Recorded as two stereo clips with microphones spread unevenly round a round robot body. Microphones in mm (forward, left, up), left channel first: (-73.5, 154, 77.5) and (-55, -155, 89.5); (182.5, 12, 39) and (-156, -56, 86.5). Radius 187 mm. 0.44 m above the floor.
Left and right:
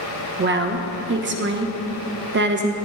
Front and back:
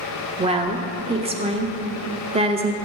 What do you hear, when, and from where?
0.4 s a woman speaking: 95° right, 1.0 m